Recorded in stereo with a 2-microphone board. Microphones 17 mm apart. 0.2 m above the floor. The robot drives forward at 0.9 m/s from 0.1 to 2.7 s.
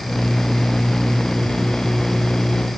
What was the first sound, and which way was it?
Only background noise.